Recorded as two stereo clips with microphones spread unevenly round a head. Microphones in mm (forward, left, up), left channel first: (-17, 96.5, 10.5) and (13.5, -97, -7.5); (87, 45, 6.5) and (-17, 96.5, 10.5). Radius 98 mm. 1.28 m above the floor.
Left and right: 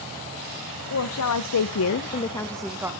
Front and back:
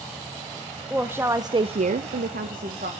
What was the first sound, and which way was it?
A woman speaking, 75° left.